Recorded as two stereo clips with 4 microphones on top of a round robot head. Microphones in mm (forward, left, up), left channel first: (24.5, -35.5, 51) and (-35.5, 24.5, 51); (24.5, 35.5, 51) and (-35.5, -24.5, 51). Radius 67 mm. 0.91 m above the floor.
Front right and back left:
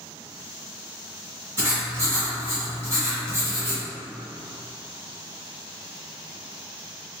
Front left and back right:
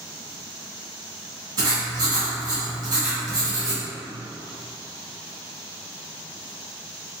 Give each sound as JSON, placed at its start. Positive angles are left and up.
{"t": 1.6, "sound": "writing", "azimuth_deg": -165, "distance_m": 1.6}